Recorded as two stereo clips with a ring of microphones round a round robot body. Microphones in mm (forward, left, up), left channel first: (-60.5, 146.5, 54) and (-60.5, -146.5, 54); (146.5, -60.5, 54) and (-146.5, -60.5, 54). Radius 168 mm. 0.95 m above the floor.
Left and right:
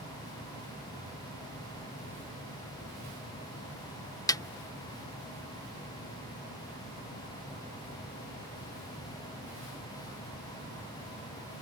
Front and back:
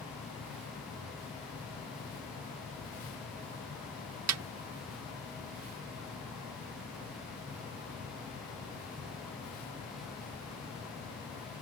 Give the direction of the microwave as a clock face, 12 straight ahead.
I don't hear a microwave.